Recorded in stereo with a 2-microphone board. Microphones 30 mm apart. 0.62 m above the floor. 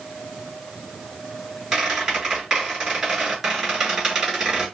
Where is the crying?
No crying in this recording.